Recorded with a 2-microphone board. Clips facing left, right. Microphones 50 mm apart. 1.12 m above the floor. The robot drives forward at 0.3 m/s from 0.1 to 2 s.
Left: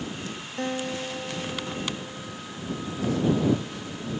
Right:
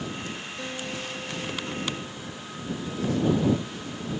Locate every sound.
0.6 s a guitar: 45° left (ahead or behind), 0.5 m; by 2.4 s 25° left (ahead or behind), 0.8 m